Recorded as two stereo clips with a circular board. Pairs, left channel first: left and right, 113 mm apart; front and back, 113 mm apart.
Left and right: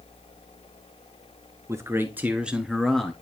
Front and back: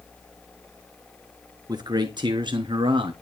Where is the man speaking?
145° right, 1.7 m; by 3.1 s 170° left, 1.6 m.